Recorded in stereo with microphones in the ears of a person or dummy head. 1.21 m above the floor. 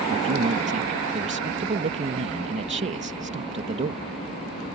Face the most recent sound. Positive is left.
turn(degrees=-40)  # may be behind; listen again after turning